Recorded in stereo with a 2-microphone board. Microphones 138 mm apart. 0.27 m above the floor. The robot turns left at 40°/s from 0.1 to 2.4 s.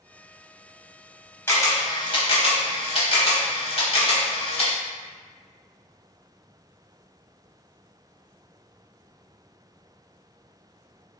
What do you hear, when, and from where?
1.5 s a camera shutter: 20° left (ahead or behind), 0.7 m; by 4.8 s 45° left (ahead or behind), 0.7 m